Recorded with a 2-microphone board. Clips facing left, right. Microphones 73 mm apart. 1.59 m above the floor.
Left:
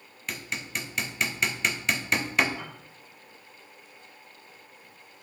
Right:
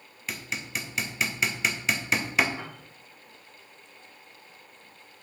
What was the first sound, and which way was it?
Hammering, centre (ahead or behind).